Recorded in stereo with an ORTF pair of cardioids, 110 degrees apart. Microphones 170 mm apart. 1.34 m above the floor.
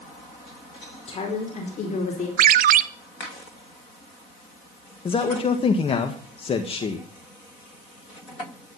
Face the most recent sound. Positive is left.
turn(degrees=35)